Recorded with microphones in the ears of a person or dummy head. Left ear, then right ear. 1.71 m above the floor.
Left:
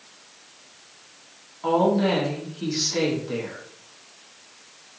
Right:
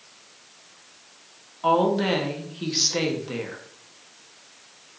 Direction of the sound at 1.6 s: 20° right (ahead or behind).